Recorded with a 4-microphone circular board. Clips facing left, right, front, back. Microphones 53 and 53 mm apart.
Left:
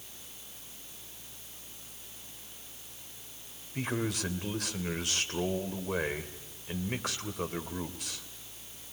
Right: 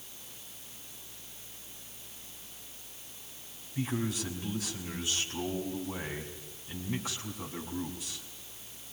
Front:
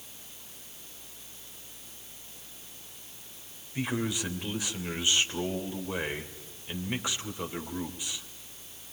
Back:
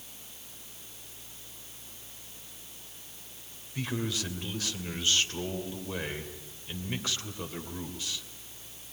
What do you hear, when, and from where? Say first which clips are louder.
3.8 s a man speaking: even, front 2 dB; 70° left, 3 m